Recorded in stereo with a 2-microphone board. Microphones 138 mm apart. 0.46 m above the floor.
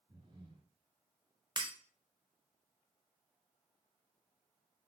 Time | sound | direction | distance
0.1 | breathing | 35° right (ahead or behind) | 0.9 m
1.6 | breaking glass | 35° right (ahead or behind) | 0.6 m